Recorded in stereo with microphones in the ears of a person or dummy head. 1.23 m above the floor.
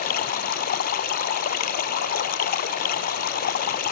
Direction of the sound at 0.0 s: 50° left (ahead or behind).